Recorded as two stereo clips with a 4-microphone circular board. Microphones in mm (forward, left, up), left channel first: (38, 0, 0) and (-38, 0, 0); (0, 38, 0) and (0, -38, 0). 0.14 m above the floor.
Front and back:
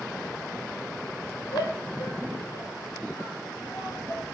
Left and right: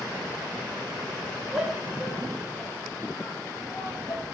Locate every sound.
1.5 s a shout: 5° right, 4.5 m; by 4.2 s 45° left, 5 m